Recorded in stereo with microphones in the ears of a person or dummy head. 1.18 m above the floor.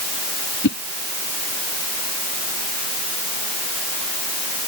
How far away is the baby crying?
No baby crying in this recording.